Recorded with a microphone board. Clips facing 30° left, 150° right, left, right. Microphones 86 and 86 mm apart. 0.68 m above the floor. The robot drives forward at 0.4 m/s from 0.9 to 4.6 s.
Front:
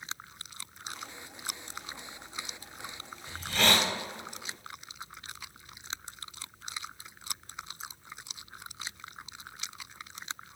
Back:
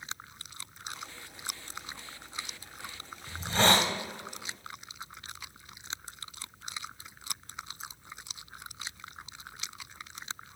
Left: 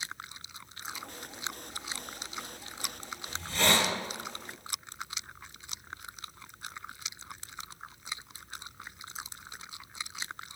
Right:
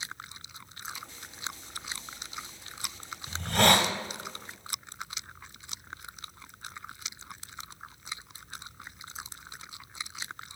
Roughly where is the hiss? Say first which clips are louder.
Back 3 dB, right 5 dB; right.